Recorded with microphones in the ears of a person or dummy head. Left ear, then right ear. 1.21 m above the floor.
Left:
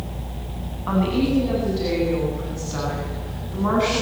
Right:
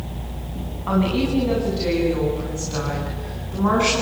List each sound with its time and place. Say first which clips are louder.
0.9 s a woman speaking: even; 5° right (ahead or behind), 10 m; by 4.0 s 10° right (ahead or behind), 11.5 m